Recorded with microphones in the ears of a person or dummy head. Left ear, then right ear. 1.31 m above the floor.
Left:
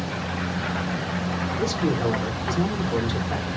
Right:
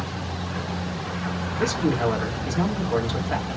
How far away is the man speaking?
About 1.6 m.